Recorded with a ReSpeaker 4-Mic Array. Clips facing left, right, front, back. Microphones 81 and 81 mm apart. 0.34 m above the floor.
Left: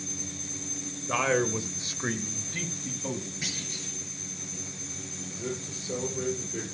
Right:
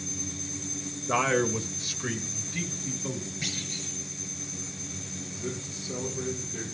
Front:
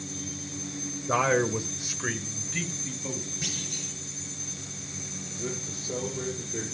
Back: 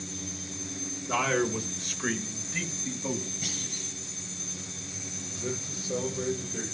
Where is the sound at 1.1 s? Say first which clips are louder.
Right 1 dB, front 3 dB; 15° right, 1.1 m; by 3.3 s 110° left, 1.9 m.